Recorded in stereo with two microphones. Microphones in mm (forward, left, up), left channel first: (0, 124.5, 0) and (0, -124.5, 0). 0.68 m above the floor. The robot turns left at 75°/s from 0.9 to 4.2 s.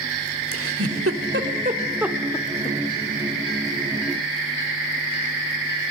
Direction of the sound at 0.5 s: 65° right (ahead or behind).